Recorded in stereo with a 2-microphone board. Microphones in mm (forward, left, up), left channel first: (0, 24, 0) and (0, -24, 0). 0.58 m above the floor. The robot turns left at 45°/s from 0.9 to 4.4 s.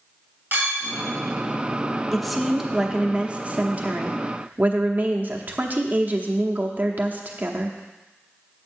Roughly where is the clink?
Right.